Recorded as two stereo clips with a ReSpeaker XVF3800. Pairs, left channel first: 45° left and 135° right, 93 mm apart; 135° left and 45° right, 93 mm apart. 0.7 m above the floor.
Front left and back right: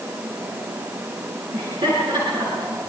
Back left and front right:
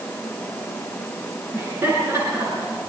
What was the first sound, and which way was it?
Laughter, 110° right.